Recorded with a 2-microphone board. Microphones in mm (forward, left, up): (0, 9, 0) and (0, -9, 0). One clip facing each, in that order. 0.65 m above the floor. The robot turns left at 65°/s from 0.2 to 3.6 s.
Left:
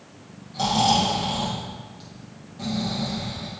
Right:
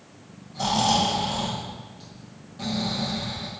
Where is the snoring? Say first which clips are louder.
Left 2 dB; 115° left, 5 m; by 3.5 s 80° right, 5 m.